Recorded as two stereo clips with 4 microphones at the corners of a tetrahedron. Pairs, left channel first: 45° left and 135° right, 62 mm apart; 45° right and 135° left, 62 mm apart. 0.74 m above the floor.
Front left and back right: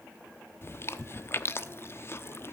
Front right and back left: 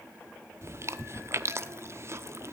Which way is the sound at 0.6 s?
90° left.